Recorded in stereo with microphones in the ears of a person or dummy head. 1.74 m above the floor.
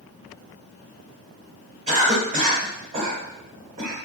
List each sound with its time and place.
1.9 s a cough: 40° right (ahead or behind), 1.3 m